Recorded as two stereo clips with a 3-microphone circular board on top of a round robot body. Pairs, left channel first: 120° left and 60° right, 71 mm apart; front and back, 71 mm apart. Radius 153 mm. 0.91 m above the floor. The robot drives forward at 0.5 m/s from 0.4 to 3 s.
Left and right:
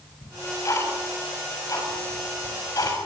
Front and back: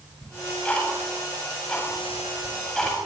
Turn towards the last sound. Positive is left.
turn(degrees=85)